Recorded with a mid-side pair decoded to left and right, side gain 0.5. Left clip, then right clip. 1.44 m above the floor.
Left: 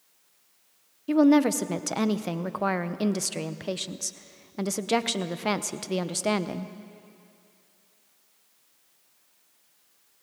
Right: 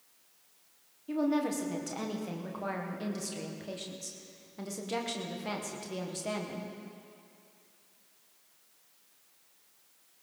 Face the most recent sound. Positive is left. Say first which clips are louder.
# left 10 dB
turn(degrees=60)